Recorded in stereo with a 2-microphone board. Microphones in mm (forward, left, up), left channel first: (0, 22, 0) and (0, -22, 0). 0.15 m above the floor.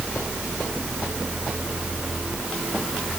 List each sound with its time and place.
Only background noise.